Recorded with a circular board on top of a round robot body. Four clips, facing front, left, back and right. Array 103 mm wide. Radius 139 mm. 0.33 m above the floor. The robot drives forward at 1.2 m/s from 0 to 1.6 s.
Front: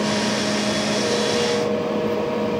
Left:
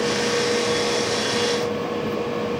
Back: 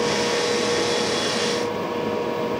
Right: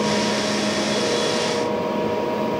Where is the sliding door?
I don't hear a sliding door.